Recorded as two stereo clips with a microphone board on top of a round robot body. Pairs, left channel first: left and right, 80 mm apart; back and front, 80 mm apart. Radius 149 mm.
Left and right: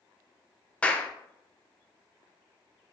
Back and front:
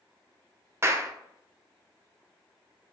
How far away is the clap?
About 0.7 m.